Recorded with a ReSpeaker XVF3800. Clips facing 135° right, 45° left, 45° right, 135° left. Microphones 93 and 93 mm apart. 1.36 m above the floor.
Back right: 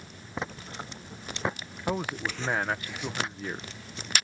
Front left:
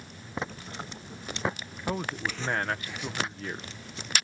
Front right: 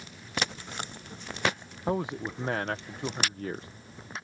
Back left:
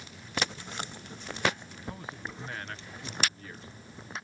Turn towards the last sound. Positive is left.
turn(degrees=-55)